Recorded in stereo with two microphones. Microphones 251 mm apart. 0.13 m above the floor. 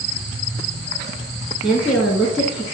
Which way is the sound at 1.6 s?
Centre (ahead or behind).